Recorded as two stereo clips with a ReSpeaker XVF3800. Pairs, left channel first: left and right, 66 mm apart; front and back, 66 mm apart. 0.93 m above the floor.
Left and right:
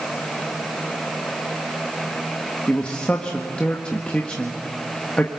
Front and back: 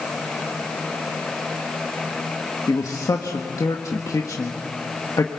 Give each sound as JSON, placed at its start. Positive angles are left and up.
{"t": 2.7, "sound": "a man speaking", "azimuth_deg": 20, "distance_m": 1.6}